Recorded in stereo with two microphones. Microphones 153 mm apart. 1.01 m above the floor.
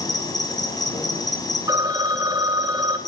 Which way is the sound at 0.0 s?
25° left (ahead or behind).